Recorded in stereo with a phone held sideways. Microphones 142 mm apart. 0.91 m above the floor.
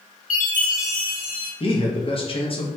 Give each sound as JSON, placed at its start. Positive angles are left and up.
{"t": 0.3, "sound": "a chime", "side_deg": 65, "distance_m": 1.0}
{"t": 1.6, "sound": "a man speaking", "side_deg": 40, "distance_m": 0.7}